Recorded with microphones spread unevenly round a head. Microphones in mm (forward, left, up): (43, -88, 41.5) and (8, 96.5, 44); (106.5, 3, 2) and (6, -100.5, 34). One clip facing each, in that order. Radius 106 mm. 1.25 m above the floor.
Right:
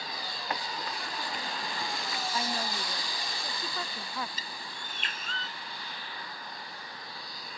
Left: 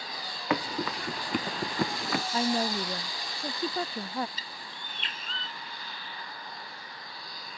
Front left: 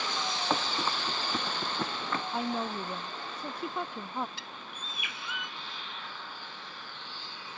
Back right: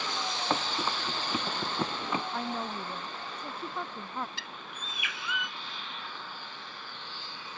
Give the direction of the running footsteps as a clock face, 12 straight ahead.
7 o'clock.